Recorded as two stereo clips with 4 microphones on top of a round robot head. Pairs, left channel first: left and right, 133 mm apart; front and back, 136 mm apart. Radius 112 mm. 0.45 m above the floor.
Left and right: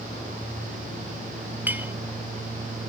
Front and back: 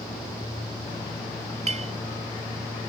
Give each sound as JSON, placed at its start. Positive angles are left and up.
{"t": 1.7, "sound": "a clink", "azimuth_deg": -165}